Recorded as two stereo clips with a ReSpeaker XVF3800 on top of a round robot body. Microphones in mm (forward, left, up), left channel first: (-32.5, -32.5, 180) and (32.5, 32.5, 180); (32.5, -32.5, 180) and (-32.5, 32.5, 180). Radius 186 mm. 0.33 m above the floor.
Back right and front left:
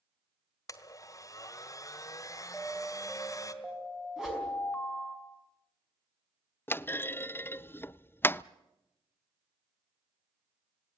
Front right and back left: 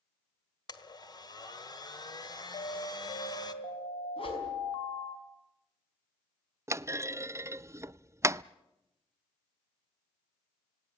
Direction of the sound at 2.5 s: 50° right.